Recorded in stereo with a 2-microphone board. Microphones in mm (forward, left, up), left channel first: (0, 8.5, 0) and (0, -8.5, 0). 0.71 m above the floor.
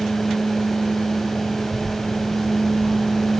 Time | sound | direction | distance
1.6 | a child speaking | 70° left (ahead or behind) | 3.5 m